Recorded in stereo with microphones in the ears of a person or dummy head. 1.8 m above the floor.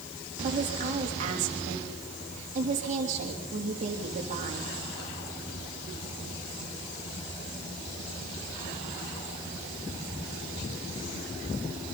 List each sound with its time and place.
0.4 s a woman speaking: 40° right (ahead or behind), 3.5 m